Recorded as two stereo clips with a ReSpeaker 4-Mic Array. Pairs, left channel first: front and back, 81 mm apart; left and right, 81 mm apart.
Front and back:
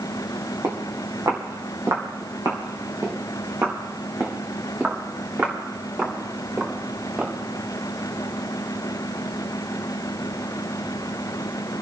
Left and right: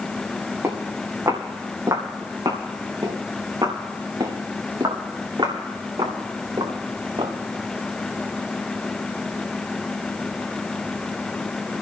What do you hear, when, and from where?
0.6 s footsteps: 145° right, 4 m; by 7.3 s 105° right, 6 m